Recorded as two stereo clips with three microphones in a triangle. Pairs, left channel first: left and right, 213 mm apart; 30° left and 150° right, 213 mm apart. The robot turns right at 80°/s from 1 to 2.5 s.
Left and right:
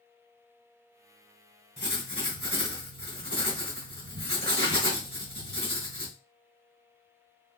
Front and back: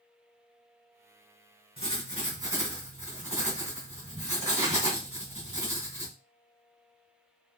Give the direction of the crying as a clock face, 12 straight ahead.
I don't hear crying.